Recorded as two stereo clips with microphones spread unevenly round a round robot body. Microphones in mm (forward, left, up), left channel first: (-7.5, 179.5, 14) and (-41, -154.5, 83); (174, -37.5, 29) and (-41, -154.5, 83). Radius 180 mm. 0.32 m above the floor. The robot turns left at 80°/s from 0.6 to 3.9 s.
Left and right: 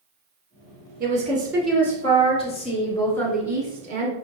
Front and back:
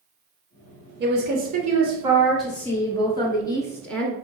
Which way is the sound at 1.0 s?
155° right.